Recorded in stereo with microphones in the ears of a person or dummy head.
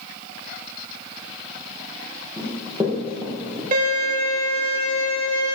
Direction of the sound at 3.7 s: 45° right (ahead or behind).